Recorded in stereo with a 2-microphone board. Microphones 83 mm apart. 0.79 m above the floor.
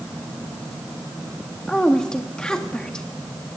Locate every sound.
1.7 s a woman speaking: 10° left (ahead or behind), 1.4 m